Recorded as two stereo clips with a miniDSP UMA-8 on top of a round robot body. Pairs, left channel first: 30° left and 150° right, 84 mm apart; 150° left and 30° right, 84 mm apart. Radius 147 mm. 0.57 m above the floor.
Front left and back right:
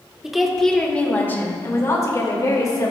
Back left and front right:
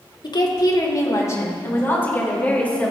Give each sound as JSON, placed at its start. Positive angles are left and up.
{"t": 0.2, "sound": "a woman speaking", "azimuth_deg": 125, "distance_m": 2.5}